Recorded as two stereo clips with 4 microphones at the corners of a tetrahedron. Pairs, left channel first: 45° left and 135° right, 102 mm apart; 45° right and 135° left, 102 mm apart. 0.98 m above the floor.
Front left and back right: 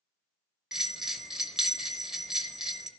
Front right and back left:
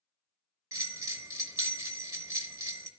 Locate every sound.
0.7 s a bell: 145° left, 0.8 m